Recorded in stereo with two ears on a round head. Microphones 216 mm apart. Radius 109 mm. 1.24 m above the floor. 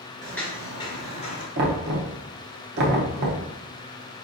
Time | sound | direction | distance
0.2 | footsteps | centre (ahead or behind) | 1.2 m
1.6 | knocking | 45° right (ahead or behind) | 0.7 m